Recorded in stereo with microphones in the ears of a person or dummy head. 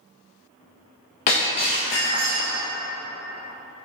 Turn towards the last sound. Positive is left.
turn(degrees=25)  # may be behind; listen again after turning